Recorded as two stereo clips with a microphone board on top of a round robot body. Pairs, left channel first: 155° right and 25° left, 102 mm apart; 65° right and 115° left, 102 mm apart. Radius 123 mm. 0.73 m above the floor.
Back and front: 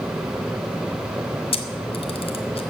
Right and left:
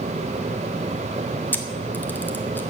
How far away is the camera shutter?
About 1.5 m.